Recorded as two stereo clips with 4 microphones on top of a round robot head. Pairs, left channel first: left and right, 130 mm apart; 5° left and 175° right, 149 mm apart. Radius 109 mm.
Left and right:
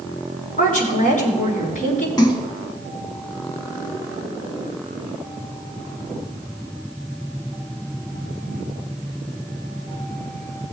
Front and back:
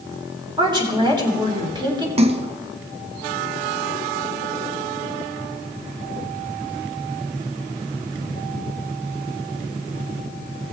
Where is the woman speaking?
125° left, 3 m.